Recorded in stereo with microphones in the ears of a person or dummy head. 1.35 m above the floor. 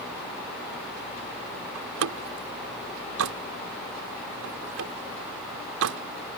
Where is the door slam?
75° right (ahead or behind).